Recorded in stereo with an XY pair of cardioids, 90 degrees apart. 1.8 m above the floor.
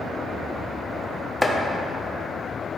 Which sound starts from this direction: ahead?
Chopping, at 1.4 s.